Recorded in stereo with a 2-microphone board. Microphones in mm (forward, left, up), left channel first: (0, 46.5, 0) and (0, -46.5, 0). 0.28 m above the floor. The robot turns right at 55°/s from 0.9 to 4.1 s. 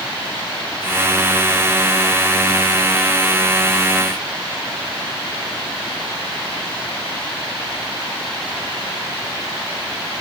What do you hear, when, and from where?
Only background noise.